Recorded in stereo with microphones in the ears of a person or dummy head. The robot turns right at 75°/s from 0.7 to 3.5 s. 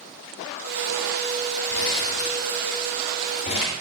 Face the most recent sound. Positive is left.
turn(degrees=35)  # may be behind; listen again after turning